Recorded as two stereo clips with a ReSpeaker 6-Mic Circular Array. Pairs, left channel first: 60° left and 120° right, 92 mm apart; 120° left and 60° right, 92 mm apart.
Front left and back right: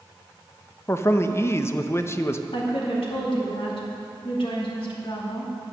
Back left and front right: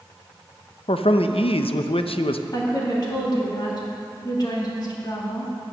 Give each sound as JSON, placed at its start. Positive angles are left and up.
{"t": 0.9, "sound": "a man speaking", "azimuth_deg": 120, "distance_m": 0.6}
{"t": 2.5, "sound": "a woman speaking", "azimuth_deg": 80, "distance_m": 2.5}